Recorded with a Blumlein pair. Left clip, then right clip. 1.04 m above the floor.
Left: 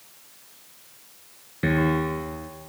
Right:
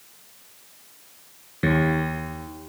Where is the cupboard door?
I don't hear a cupboard door.